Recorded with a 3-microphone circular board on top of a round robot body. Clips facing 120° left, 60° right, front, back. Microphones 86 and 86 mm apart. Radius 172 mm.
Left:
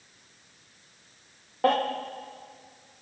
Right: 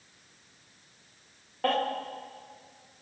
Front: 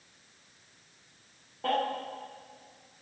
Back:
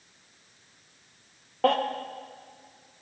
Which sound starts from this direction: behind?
A baby crying, at 1.6 s.